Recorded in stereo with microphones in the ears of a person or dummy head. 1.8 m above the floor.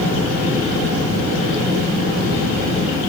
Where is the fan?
65° right (ahead or behind), 1.8 m.